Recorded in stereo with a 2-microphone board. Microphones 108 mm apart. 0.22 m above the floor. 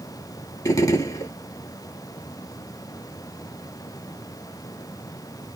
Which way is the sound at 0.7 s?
30° left (ahead or behind).